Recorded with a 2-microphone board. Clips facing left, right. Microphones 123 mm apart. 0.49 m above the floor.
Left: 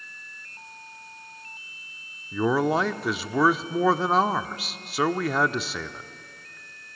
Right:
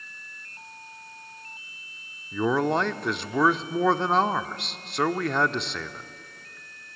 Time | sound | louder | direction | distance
2.3 | a man speaking | left 1 dB | 5° left (ahead or behind) | 0.7 m